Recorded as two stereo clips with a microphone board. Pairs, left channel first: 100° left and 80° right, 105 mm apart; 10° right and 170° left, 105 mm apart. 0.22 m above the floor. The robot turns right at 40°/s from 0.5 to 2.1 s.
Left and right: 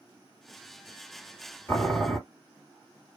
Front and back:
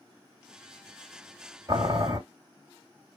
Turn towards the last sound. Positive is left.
turn(degrees=175)